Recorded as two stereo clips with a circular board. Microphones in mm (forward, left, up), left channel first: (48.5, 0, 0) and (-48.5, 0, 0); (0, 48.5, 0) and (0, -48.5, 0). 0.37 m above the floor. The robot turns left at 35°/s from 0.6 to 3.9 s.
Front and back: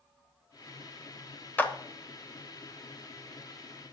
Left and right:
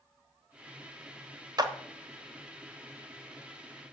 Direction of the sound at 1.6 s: 65° right.